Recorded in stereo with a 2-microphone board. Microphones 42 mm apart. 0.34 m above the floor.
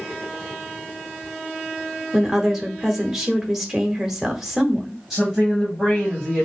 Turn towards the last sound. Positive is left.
turn(degrees=-10)  # may be behind; listen again after turning